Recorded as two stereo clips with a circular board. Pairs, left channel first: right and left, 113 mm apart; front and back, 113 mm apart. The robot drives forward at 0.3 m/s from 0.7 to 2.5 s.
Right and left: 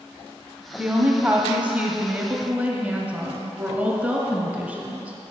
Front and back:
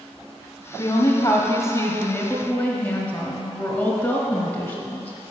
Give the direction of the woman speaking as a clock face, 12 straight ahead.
11 o'clock.